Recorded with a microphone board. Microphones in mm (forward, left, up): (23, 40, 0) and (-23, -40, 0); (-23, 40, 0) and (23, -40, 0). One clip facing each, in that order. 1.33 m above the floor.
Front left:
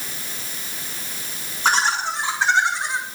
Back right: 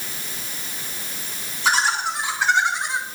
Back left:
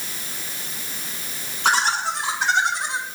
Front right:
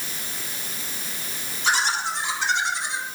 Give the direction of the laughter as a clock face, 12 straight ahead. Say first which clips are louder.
Front left 1 dB, back left 3 dB; 9 o'clock.